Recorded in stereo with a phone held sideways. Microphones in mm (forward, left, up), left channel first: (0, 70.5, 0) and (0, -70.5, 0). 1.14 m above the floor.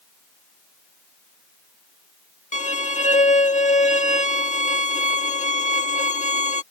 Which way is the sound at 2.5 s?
60° left (ahead or behind).